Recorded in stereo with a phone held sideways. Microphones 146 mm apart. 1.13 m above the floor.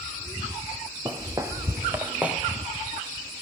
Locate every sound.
1.1 s footsteps: 25° right (ahead or behind), 1.4 m; by 2.4 s 5° right (ahead or behind), 1.1 m